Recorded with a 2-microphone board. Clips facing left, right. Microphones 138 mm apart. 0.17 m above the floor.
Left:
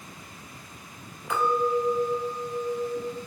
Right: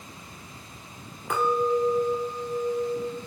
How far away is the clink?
About 1.0 m.